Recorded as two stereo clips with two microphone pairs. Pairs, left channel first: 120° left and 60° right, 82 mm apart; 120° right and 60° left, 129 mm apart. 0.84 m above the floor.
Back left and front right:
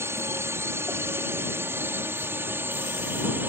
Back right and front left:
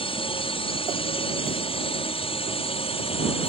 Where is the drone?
105° right; by 3.5 s 115° right.